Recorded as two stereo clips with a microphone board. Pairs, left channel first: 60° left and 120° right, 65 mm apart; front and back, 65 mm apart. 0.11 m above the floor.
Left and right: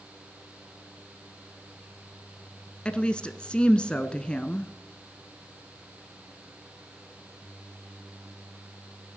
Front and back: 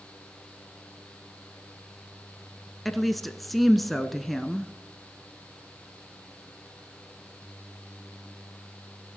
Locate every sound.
2.9 s a woman speaking: 85° left, 1.1 m